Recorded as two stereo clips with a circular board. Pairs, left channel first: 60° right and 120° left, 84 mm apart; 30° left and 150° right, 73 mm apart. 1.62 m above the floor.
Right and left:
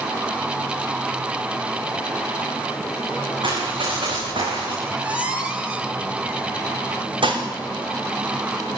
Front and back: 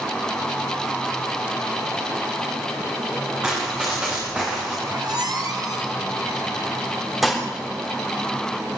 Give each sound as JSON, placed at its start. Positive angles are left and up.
{"t": 3.4, "sound": "running footsteps", "azimuth_deg": 130, "distance_m": 9.0}
{"t": 4.8, "sound": "a squeak", "azimuth_deg": -165, "distance_m": 3.0}
{"t": 7.2, "sound": "dishes clattering", "azimuth_deg": 120, "distance_m": 3.5}